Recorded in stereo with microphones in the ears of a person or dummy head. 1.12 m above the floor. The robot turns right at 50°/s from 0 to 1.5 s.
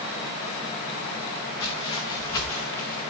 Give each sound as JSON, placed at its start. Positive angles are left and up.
{"t": 1.6, "sound": "footsteps", "side_deg": 30, "distance_m": 5.0}